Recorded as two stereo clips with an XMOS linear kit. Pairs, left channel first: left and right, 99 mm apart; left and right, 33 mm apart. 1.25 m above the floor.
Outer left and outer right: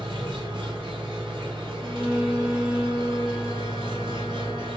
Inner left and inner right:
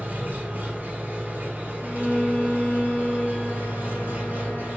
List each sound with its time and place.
0.0 s an engine running: 60° right (ahead or behind), 0.9 m
1.8 s a violin: 60° left (ahead or behind), 0.8 m